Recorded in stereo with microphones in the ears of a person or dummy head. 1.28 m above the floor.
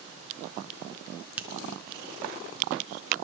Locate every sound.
1.4 s a finger snap: 10° right (ahead or behind), 0.8 m